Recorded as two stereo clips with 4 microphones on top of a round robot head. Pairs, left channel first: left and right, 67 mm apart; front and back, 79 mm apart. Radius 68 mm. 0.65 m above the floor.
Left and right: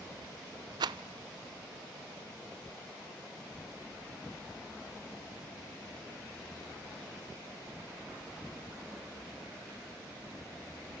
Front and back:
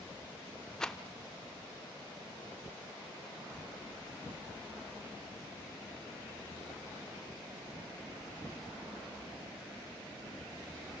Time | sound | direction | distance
0.8 | a rattle | 80° right | 0.7 m